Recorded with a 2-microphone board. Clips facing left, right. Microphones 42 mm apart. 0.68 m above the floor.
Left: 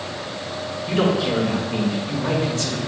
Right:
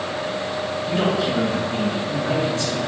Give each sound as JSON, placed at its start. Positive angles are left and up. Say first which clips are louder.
{"t": 0.9, "sound": "a man speaking", "louder": "left 2 dB", "side_deg": 70, "distance_m": 2.5}